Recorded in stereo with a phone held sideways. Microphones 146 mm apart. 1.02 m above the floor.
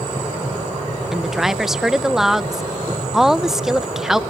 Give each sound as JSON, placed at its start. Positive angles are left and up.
{"t": 1.1, "sound": "a woman speaking", "side_deg": 0}